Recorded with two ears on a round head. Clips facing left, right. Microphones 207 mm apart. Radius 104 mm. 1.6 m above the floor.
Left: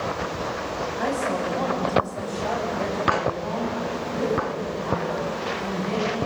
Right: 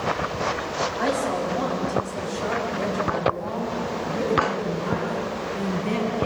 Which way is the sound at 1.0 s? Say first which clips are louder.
Right 1 dB; 5° right (ahead or behind).